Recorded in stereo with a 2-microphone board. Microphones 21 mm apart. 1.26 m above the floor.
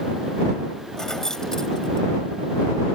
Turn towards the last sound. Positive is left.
turn(degrees=30)  # may be behind; listen again after turning